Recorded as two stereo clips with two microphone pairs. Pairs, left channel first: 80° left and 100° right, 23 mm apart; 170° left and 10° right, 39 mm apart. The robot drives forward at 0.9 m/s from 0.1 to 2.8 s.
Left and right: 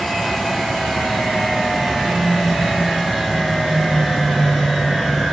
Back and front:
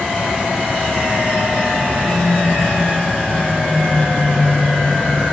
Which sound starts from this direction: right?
A phone buzzing, at 1.9 s.